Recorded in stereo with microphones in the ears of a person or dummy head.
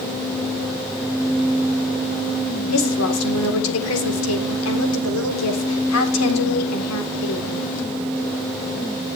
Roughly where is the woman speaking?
Left.